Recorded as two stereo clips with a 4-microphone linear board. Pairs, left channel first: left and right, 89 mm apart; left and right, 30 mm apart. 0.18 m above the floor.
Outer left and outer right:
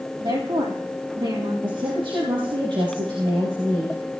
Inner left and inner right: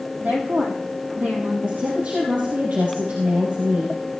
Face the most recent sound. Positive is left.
turn(degrees=-65)  # may be behind; listen again after turning